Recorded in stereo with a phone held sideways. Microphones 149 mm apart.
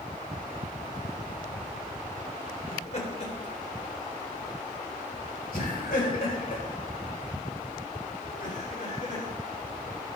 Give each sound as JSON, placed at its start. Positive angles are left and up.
{"t": 2.7, "sound": "laughter", "side_deg": 50, "distance_m": 3.5}